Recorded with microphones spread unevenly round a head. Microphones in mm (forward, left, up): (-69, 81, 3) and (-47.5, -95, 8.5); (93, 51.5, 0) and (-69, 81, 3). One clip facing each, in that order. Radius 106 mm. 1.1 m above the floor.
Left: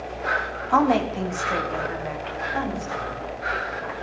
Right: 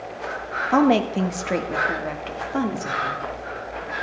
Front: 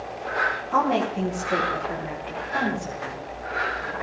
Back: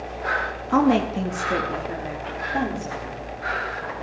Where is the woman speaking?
145° right, 1.9 m; by 3.2 s 110° right, 4 m.